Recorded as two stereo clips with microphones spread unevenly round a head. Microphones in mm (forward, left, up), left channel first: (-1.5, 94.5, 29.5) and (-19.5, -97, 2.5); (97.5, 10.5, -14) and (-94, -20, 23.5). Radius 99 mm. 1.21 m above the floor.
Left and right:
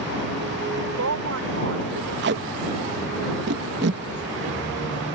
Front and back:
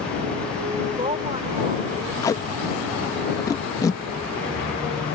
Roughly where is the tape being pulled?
Ahead right.